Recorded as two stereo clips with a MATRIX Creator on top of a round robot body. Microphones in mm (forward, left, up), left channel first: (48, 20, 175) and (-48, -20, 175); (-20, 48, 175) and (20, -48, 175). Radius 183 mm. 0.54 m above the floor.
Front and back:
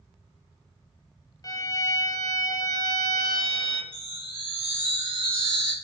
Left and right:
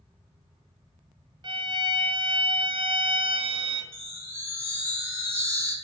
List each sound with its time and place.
1.4 s a violin: 30° right, 0.9 m
3.9 s a chime: 130° right, 2 m